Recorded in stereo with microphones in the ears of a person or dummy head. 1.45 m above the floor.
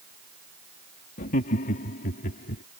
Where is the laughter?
45° left (ahead or behind).